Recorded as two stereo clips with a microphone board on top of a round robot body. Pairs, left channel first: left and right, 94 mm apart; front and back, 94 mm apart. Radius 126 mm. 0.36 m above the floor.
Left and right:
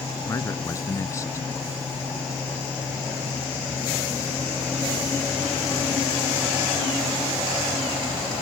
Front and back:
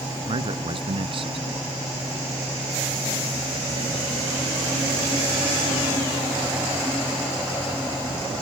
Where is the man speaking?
150° left.